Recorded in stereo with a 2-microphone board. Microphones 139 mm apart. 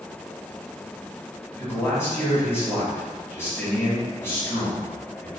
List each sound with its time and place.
1.6 s a man speaking: 15° left (ahead or behind), 1.3 m